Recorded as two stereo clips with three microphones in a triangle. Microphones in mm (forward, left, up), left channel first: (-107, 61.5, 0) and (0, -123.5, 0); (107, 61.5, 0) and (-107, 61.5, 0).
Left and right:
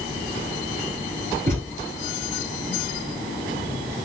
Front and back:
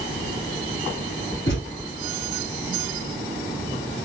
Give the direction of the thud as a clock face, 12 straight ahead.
1 o'clock.